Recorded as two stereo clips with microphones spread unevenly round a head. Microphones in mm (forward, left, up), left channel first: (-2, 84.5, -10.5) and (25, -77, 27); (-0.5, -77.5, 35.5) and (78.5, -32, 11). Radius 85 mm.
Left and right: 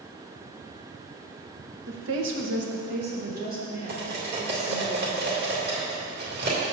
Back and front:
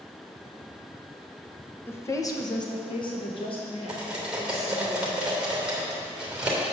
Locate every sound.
1.9 s a woman speaking: 75° right, 1.1 m; by 4.9 s 135° right, 3 m
3.9 s cutlery clinking: 50° right, 2.5 m